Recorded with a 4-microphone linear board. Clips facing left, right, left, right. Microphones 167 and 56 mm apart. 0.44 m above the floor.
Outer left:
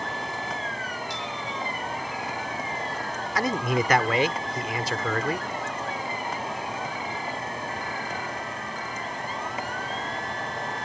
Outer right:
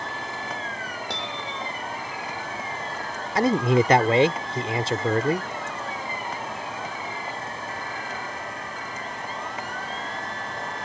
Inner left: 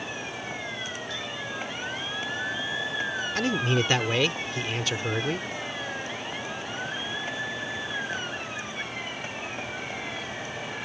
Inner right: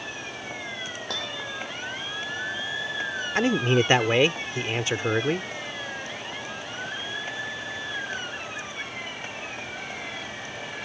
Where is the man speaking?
30° right (ahead or behind).